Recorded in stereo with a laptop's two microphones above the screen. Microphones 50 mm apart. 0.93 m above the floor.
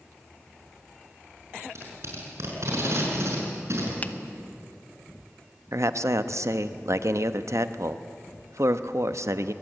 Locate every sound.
1.6 s tape being pulled: 60° right (ahead or behind), 6.5 m
4.0 s a finger snap: 35° left (ahead or behind), 0.8 m
5.7 s a man speaking: 65° right (ahead or behind), 0.9 m